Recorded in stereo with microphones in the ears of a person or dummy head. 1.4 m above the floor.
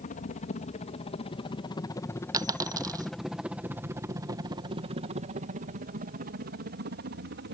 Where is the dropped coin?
20° right (ahead or behind).